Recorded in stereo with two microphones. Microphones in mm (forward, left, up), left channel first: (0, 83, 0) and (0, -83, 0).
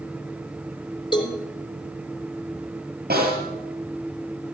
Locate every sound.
1.1 s a cowbell: 30° left (ahead or behind), 3 m
3.1 s a snare drum: 70° right (ahead or behind), 7.5 m